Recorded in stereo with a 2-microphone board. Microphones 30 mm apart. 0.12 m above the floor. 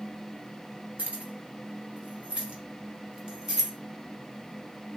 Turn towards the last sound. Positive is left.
turn(degrees=-15)  # may be behind; listen again after turning